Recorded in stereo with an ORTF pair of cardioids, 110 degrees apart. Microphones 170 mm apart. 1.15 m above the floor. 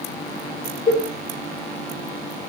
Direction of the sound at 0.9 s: 15° left.